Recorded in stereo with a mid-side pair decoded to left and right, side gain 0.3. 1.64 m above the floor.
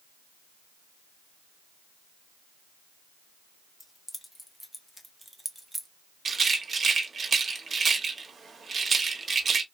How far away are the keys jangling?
About 1.6 m.